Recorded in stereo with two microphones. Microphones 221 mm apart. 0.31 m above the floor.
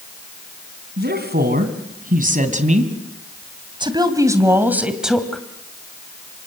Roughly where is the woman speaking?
Right.